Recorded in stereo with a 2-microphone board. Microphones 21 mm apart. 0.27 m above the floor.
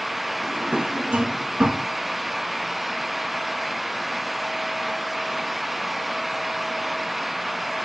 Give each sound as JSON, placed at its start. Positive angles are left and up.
{"t": 0.4, "sound": "a drawer", "side_deg": -65, "distance_m": 1.3}